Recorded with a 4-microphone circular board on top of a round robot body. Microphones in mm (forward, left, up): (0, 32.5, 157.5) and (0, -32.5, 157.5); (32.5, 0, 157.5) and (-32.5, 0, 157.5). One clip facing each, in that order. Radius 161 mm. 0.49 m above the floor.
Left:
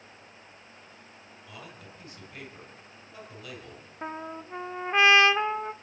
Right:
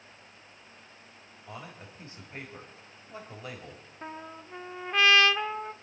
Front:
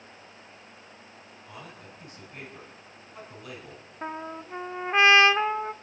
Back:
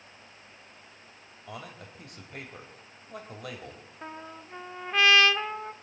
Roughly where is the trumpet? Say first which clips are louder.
Left 5 dB, front 7 dB; ahead left.